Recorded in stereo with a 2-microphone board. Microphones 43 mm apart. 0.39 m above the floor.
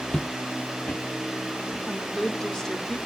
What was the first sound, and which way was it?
Footsteps, 20° left (ahead or behind).